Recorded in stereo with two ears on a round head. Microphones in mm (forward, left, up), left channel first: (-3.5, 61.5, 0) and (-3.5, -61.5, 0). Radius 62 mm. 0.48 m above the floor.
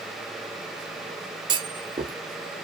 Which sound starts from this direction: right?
A clunk, at 1.5 s.